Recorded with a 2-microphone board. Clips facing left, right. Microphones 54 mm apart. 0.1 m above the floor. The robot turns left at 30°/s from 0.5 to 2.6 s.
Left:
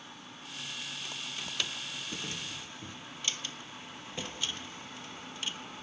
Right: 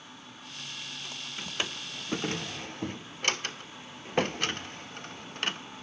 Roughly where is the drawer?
Right.